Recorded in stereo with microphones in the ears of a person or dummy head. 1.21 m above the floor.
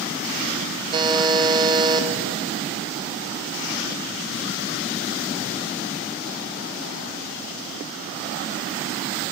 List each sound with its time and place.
0.9 s a buzzer: 25° right (ahead or behind), 1.1 m